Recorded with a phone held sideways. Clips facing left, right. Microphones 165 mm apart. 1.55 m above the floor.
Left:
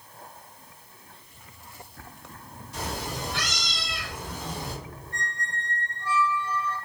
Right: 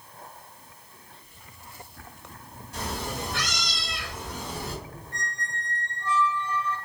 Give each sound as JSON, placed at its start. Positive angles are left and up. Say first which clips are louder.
{"t": 2.7, "sound": "a cat meowing", "louder": "right 1 dB", "side_deg": -55, "distance_m": 1.5}
{"t": 5.1, "sound": "a squeak", "louder": "left 2 dB", "side_deg": 10, "distance_m": 0.8}